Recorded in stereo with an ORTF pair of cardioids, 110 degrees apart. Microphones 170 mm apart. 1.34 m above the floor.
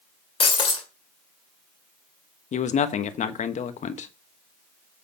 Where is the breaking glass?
35° left, 2.5 m.